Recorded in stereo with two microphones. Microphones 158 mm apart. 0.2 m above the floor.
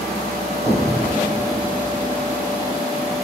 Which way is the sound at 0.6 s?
5° left (ahead or behind).